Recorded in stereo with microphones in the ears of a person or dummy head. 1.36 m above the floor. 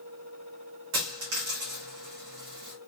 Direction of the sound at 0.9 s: 50° right (ahead or behind).